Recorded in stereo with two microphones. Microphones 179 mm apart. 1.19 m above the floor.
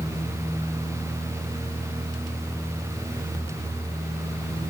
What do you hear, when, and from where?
Only background noise.